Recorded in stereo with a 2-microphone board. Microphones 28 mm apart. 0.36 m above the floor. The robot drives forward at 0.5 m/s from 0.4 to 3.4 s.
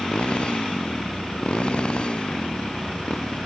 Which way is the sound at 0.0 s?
45° left (ahead or behind).